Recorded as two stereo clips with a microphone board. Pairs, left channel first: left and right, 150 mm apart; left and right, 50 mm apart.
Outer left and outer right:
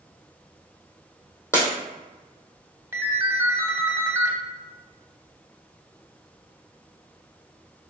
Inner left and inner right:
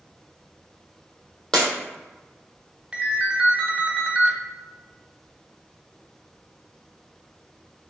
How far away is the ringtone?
About 0.7 m.